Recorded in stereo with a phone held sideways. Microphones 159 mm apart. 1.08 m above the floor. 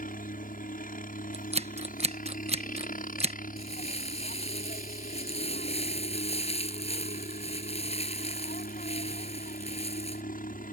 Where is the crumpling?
40° left (ahead or behind).